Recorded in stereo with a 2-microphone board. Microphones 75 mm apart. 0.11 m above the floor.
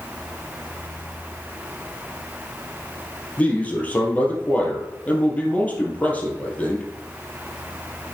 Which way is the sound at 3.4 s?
20° left (ahead or behind).